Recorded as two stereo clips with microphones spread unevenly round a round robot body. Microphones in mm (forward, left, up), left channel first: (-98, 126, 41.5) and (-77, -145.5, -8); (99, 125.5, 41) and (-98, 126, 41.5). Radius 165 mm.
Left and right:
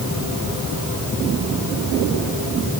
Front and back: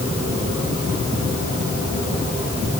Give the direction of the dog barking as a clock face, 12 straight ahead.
I don't hear a dog barking.